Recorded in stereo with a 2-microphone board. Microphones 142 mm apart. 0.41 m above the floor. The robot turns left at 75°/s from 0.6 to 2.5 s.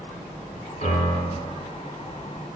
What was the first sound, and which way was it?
A piano, 65° left.